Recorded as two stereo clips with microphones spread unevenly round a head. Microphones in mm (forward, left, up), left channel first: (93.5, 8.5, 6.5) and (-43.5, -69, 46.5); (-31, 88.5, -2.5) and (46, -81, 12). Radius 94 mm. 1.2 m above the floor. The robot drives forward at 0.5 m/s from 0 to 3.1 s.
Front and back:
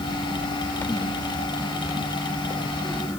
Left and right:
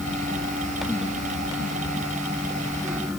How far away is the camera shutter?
No camera shutter in this recording.